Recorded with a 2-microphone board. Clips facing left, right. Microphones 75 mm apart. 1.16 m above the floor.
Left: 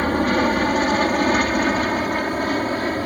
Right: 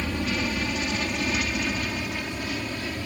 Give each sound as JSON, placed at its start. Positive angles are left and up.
{"t": 0.0, "sound": "an aircraft", "side_deg": 45}